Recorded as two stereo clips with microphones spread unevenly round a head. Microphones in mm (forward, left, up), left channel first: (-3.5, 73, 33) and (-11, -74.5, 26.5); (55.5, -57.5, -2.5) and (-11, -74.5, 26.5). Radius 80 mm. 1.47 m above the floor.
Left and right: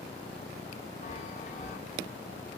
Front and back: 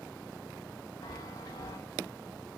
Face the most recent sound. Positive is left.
turn(degrees=85)